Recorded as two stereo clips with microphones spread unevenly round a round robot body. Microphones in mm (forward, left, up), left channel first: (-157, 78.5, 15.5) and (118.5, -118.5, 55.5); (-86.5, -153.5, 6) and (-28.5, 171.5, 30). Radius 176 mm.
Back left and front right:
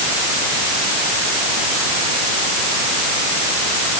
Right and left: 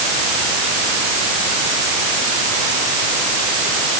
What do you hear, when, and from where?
Only background noise.